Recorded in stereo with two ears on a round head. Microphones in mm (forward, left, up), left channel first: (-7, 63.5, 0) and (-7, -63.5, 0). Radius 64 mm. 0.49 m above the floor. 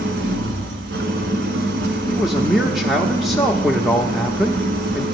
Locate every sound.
0.0 s an engine running: 80° right, 1.4 m
2.1 s a man speaking: centre (ahead or behind), 0.7 m